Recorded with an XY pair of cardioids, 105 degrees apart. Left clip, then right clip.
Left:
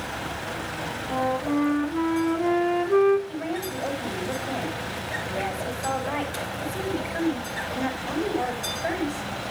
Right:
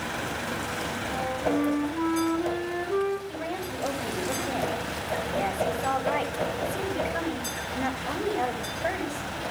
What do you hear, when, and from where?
1.1 s a flute: 45° left, 4.5 m
3.3 s a woman speaking: 5° right, 8 m